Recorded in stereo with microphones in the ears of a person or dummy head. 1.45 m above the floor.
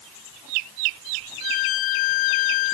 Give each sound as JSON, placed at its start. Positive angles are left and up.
{"t": 1.4, "sound": "a violin", "side_deg": 45}